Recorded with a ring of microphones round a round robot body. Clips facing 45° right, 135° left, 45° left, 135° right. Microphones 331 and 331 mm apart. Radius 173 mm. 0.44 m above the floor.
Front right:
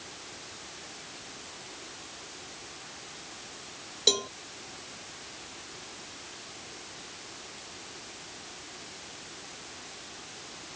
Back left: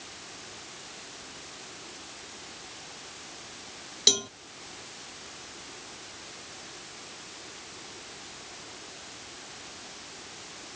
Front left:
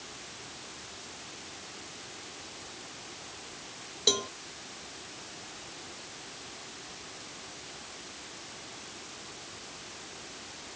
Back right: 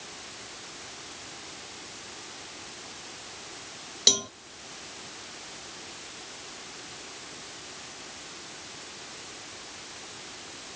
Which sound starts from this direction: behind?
A cowbell, at 4.1 s.